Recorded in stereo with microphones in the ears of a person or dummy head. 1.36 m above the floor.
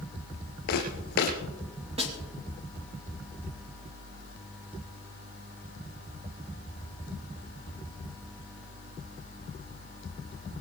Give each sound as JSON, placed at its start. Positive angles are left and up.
{"t": 0.7, "sound": "footsteps", "side_deg": 60, "distance_m": 5.0}
{"t": 2.0, "sound": "a snare drum", "side_deg": -35, "distance_m": 2.5}